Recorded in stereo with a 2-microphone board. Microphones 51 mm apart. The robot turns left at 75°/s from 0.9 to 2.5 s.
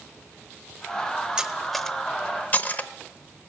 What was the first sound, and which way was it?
Cutlery clinking, 15° right (ahead or behind).